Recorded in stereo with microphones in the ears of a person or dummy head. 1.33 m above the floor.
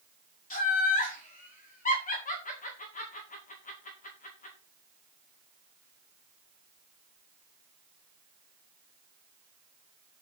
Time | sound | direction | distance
0.5 | laughter | 35° left (ahead or behind) | 1.7 m